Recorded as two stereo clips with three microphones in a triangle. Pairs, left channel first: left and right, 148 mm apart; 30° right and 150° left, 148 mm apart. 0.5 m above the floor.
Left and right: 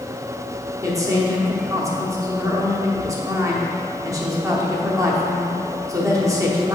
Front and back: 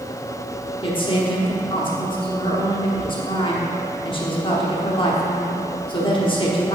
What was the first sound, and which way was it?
A woman speaking, 40° right.